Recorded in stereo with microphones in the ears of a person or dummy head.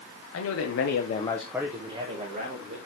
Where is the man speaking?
75° left (ahead or behind), 1.2 m; by 2.8 s 45° right (ahead or behind), 1.9 m.